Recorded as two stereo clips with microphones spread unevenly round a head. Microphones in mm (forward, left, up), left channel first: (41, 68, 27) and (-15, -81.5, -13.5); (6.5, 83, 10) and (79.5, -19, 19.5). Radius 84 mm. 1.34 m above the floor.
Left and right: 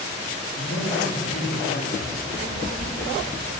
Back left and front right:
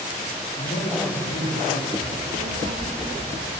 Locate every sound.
0.6 s a man speaking: 105° left, 10 m
2.0 s a child speaking: 70° right, 3.5 m